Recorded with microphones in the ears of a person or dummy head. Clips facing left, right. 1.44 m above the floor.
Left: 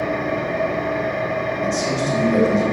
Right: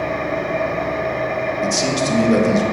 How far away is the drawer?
I don't hear a drawer.